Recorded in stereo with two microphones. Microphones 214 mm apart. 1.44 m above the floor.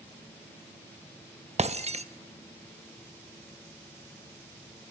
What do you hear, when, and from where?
1.6 s breaking glass: 30° right (ahead or behind), 0.9 m